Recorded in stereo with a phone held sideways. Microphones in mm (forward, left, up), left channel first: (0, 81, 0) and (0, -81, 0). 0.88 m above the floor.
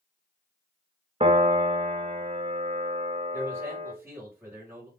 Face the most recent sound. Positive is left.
turn(degrees=-15)  # may be behind; listen again after turning